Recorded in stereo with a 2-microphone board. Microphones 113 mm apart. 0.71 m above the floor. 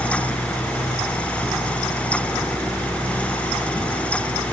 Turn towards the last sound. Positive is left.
No sound to turn to.